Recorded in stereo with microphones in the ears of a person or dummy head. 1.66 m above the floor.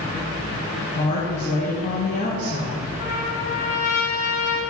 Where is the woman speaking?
40° left (ahead or behind), 1.8 m.